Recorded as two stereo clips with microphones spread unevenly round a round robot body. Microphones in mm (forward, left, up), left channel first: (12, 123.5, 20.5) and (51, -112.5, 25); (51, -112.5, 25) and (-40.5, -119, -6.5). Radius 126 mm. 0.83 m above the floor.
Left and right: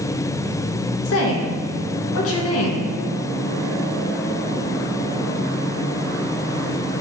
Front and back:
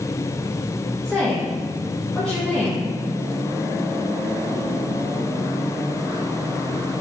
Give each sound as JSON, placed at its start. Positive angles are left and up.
{"t": 1.1, "sound": "a woman speaking", "azimuth_deg": 105, "distance_m": 0.8}